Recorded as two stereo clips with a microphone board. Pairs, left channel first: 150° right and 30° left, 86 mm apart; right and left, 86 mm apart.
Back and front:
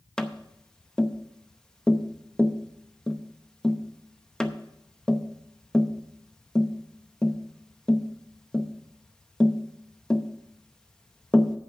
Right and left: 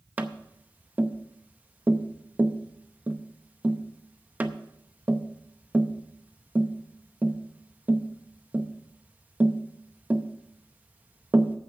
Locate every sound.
0.2 s tapping: 135° left, 0.7 m